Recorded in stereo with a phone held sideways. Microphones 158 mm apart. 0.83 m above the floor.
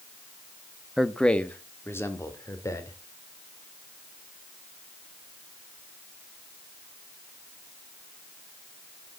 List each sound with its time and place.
1.0 s a man speaking: centre (ahead or behind), 0.9 m; by 3.0 s 20° left (ahead or behind), 3 m